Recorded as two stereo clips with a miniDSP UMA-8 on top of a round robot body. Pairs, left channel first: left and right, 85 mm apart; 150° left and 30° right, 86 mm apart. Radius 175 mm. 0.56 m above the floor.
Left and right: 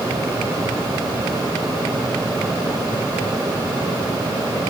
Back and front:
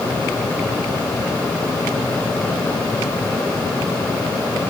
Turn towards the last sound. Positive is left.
No sound to turn to.